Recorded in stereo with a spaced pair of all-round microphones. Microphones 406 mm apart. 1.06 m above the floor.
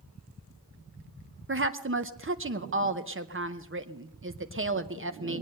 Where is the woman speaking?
30° right (ahead or behind), 0.7 m.